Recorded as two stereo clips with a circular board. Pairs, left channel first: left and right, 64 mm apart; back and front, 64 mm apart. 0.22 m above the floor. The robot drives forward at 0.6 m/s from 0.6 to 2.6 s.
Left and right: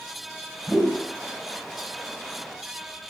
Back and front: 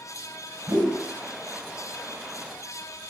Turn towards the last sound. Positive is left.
turn(degrees=-10)